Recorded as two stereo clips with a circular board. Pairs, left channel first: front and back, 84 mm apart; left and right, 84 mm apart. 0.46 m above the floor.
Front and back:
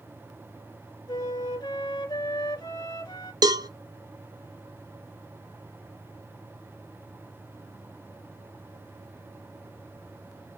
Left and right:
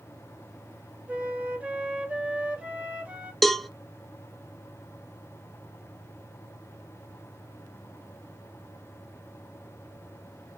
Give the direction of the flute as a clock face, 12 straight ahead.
1 o'clock.